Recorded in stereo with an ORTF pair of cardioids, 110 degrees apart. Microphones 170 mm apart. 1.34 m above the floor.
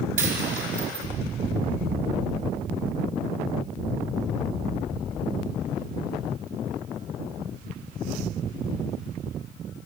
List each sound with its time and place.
0.2 s a dropped coin: 60° right, 4 m